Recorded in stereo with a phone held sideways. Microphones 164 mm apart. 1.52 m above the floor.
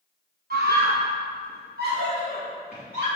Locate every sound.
0.5 s a scream: 65° right (ahead or behind), 1.4 m; by 3.1 s 75° right (ahead or behind), 3.5 m